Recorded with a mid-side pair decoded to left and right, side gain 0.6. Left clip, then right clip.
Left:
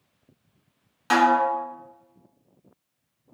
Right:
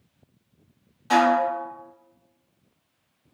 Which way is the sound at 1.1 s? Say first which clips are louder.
Even; 55° left.